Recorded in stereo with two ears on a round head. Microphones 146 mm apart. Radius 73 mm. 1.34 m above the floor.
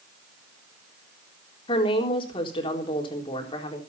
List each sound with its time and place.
1.7 s a woman speaking: 35° left (ahead or behind), 3.5 m